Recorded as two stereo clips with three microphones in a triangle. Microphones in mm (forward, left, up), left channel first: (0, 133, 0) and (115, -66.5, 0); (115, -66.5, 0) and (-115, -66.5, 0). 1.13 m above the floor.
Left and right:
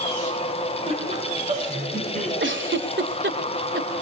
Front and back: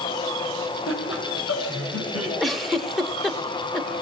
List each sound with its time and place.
0.9 s laughter: 5° left, 4 m; by 2.3 s straight ahead, 6 m
2.4 s a giggle: 90° right, 1.6 m